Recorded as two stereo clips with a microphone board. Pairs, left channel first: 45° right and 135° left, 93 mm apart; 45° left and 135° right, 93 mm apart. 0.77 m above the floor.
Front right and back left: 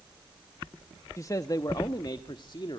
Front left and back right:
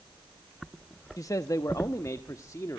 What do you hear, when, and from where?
1.2 s a man speaking: straight ahead, 0.8 m; by 2.8 s 10° right, 1.5 m